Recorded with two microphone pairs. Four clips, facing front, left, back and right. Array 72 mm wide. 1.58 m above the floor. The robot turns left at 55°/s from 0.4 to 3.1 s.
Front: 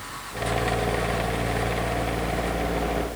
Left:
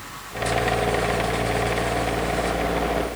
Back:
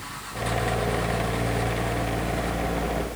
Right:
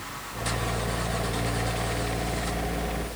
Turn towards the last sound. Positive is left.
No sound to turn to.